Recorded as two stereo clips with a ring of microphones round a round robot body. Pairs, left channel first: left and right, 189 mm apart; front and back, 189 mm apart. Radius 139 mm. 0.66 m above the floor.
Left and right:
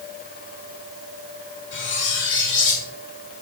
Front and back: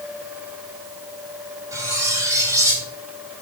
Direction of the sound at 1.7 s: 105° left.